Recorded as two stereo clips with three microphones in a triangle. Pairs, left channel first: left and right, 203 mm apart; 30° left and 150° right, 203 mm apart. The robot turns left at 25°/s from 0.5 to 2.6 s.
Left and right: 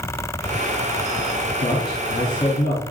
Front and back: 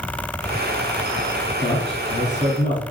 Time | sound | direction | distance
1.6 | a man speaking | 90° left | 1.7 m